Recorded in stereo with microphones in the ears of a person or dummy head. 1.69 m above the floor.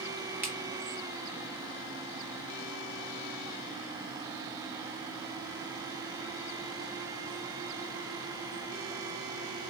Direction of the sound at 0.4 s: 15° right (ahead or behind).